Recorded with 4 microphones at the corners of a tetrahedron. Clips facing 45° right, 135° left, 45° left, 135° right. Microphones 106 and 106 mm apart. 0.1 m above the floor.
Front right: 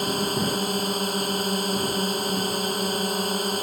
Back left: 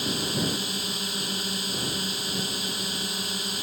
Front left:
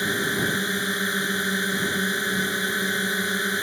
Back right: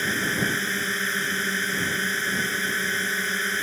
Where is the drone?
25° right.